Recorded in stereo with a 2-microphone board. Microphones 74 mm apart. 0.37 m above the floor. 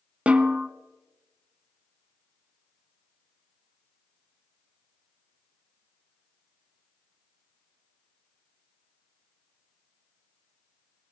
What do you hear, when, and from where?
0.3 s a snare drum: 15° right (ahead or behind), 0.6 m